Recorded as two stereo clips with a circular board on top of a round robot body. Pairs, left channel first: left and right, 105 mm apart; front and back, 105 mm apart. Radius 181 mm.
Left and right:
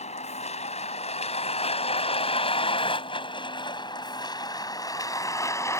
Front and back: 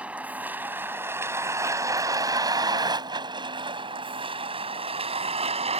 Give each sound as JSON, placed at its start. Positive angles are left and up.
{"t": 0.0, "sound": "a vehicle", "azimuth_deg": 100}